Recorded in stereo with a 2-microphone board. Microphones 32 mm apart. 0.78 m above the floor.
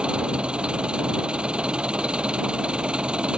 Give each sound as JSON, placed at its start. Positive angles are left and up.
{"t": 0.0, "sound": "an engine running", "side_deg": -35}